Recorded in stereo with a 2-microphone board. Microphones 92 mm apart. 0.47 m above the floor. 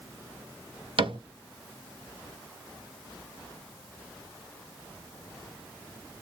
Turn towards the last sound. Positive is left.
turn(degrees=-75)  # may be behind; listen again after turning